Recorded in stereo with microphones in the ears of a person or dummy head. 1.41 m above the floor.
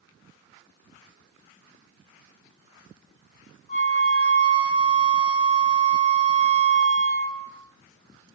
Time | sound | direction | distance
3.7 | a flute | 40° left (ahead or behind) | 1.0 m